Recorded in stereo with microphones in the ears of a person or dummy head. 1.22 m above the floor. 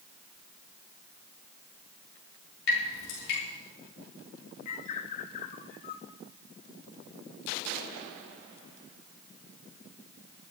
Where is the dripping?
80° left, 6.5 m.